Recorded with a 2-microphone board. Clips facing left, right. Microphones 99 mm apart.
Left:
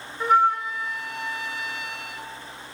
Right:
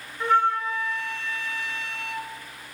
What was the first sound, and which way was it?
A flute, 15° left (ahead or behind).